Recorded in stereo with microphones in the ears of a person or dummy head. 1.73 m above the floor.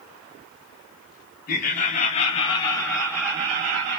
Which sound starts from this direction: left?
Laughter, at 1.5 s.